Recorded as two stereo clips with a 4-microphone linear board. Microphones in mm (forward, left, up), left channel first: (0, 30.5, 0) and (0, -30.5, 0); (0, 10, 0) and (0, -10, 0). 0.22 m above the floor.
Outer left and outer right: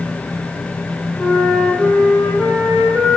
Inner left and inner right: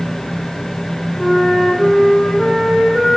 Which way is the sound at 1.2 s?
10° right (ahead or behind).